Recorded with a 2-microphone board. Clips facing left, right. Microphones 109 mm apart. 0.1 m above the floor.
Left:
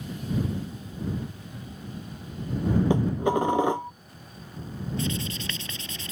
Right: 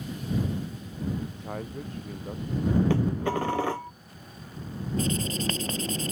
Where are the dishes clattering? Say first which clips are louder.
Left 3 dB; 20° left (ahead or behind).